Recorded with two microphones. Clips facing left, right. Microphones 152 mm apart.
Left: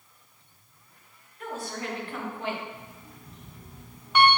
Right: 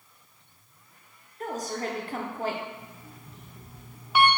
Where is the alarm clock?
5° right (ahead or behind), 0.7 m.